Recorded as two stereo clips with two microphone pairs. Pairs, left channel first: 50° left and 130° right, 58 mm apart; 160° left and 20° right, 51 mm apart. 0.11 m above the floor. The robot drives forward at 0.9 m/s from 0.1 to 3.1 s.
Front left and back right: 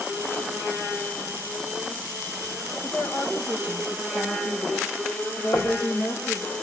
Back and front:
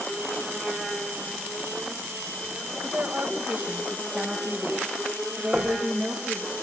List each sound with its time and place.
2.8 s a woman speaking: 40° left, 5.5 m; by 6.5 s 45° left, 5.5 m
5.5 s knocking: 60° left, 4.5 m